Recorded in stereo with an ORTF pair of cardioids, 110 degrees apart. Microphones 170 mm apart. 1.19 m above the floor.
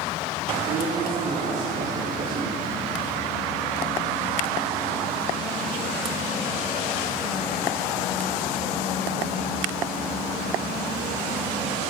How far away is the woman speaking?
About 3 m.